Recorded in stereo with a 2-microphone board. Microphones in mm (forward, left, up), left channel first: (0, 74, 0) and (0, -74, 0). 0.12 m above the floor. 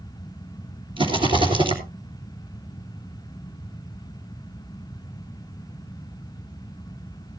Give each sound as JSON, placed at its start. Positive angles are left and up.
{"t": 1.0, "sound": "a rattle", "side_deg": -35, "distance_m": 2.5}